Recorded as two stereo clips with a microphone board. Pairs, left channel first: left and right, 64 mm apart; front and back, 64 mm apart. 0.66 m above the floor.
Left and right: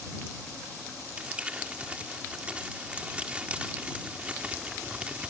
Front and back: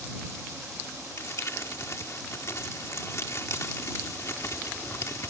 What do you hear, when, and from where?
1.2 s crumpling: 25° right